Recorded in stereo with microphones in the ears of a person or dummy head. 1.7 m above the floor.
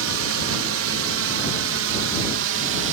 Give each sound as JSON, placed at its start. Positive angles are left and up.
{"t": 0.0, "sound": "a drone", "side_deg": -70}